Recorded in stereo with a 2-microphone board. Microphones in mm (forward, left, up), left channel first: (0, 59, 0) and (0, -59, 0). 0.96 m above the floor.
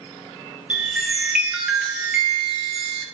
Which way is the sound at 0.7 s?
10° right (ahead or behind).